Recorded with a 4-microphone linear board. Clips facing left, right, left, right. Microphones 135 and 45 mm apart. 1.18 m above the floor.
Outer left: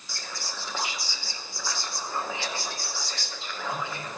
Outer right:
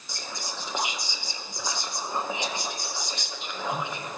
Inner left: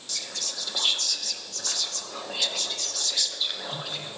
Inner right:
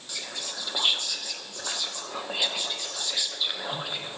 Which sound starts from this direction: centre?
Whispering, at 0.1 s.